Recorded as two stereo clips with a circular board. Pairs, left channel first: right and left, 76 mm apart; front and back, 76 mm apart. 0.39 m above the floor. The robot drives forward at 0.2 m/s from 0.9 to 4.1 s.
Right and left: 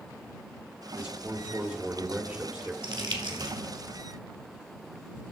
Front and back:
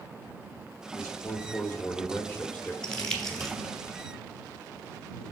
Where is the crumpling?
80° left, 1.8 m; by 3.6 s 85° left, 1.8 m.